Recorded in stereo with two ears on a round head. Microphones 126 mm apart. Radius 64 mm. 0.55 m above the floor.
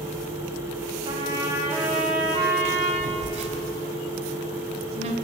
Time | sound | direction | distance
1.1 | a trumpet | 30° right (ahead or behind) | 5 m
3.0 | a phone buzzing | 55° right (ahead or behind) | 3 m